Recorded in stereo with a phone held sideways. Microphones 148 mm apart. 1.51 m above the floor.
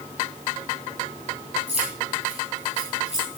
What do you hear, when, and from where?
1.7 s keys jangling: 45° right (ahead or behind), 8.5 m